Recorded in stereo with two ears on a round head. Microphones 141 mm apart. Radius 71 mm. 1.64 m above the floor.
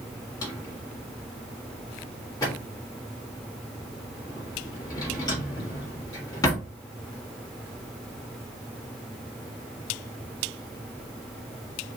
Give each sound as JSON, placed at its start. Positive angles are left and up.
{"t": 0.4, "sound": "a drawer", "side_deg": 20, "distance_m": 1.8}